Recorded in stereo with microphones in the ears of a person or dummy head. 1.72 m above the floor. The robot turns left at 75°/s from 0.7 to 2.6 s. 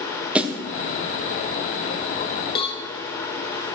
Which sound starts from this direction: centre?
A snare drum, at 0.3 s.